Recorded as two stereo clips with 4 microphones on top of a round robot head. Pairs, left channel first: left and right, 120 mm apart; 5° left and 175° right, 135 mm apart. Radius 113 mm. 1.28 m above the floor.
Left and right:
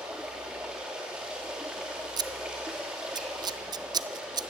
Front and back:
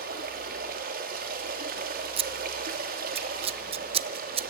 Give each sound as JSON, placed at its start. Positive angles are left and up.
{"t": 0.0, "sound": "running water", "azimuth_deg": -175, "distance_m": 2.5}
{"t": 2.2, "sound": "scissors", "azimuth_deg": -140, "distance_m": 0.6}